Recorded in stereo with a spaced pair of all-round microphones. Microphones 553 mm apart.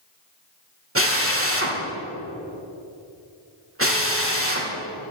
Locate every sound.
0.9 s a drill: 25° right (ahead or behind), 1.5 m